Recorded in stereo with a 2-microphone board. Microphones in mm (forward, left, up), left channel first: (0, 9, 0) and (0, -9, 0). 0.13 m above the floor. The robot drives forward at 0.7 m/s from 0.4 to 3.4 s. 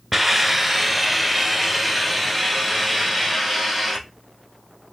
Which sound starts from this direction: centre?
A hiss, at 0.1 s.